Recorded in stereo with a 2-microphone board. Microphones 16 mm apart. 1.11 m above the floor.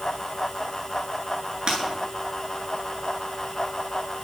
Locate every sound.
1.7 s breaking glass: 45° right (ahead or behind), 9 m